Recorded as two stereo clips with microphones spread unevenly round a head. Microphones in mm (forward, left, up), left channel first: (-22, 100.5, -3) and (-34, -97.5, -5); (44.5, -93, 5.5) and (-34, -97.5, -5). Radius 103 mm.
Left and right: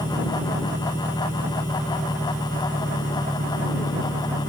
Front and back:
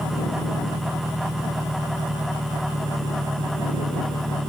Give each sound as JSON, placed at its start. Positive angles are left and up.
{"t": 0.0, "sound": "an engine running", "azimuth_deg": -170}